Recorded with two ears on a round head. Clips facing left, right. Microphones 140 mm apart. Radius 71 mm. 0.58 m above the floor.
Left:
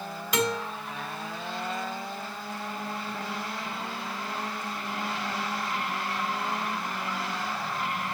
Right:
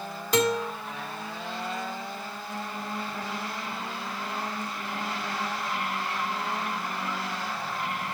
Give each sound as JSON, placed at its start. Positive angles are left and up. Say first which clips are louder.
{"t": 0.3, "sound": "a guitar", "louder": "right 4 dB", "side_deg": -35, "distance_m": 2.5}